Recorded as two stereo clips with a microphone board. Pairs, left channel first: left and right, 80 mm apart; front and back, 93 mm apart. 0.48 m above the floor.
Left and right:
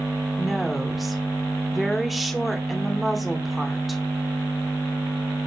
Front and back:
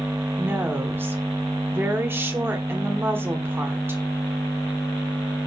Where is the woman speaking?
Straight behind, 1.2 m.